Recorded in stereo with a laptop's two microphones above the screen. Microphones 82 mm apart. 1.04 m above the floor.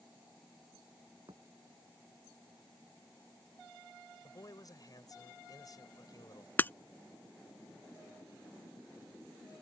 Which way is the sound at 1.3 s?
65° right (ahead or behind).